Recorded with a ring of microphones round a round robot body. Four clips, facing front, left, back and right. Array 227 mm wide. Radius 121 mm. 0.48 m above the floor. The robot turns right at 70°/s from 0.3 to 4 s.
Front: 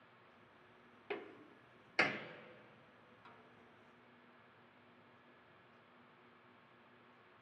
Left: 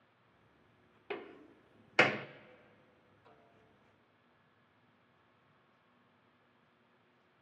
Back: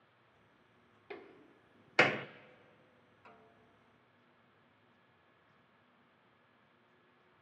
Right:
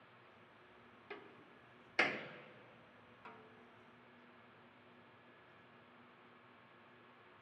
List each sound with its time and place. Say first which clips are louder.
1.1 s a door slam: left 10 dB, front 4 dB; 70° left, 0.6 m; by 2.3 s 150° left, 0.6 m
3.2 s a snare drum: right 6 dB, back 3 dB; 100° right, 1.4 m; by 3.7 s 70° right, 1.4 m